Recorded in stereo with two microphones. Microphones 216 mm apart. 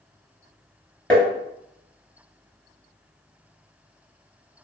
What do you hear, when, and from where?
1.1 s tapping: 5° left (ahead or behind), 0.8 m